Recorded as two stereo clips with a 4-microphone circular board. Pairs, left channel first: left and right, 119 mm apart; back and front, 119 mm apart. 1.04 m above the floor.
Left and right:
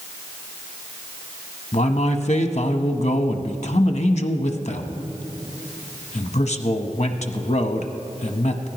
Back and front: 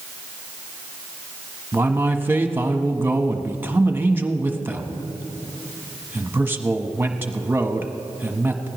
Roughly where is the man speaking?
Left.